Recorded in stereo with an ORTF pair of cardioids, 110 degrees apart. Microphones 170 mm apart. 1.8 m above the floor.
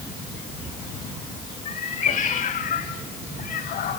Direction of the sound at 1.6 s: 50° left.